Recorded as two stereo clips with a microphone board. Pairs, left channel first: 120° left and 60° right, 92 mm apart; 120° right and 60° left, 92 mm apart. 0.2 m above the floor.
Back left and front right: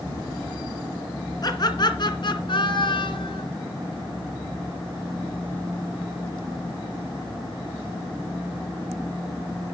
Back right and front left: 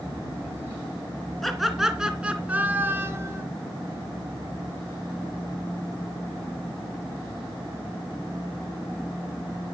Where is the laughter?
155° left, 2.5 m; by 3.4 s 115° left, 2.5 m.